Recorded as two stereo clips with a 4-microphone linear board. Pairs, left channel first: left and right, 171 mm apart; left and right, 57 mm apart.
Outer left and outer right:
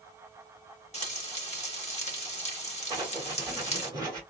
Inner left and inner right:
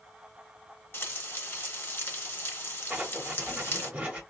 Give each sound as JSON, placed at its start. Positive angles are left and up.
{"t": 0.9, "sound": "frying", "side_deg": 40, "distance_m": 0.9}
{"t": 2.9, "sound": "writing", "side_deg": -25, "distance_m": 1.4}